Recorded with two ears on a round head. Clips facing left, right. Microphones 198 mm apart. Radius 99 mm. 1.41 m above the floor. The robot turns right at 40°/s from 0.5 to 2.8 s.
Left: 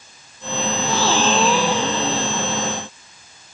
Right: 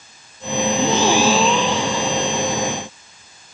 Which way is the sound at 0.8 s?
25° right.